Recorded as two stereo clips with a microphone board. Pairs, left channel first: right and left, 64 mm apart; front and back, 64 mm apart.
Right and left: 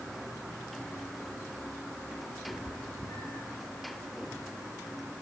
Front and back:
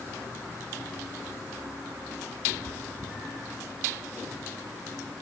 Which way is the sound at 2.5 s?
140° right.